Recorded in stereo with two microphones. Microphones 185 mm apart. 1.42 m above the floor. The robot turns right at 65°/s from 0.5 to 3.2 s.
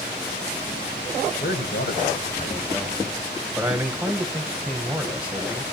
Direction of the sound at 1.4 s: 70° left.